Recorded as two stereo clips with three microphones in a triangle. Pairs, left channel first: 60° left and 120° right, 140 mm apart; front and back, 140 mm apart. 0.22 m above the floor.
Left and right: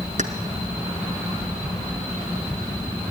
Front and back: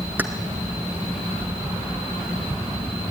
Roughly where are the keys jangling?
Right.